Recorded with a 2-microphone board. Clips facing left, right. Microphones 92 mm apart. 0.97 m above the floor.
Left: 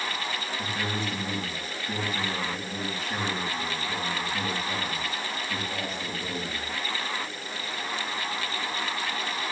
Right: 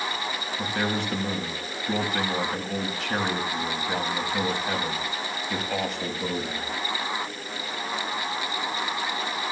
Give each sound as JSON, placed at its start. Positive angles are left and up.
{"t": 0.6, "sound": "a man speaking", "side_deg": -65, "distance_m": 6.0}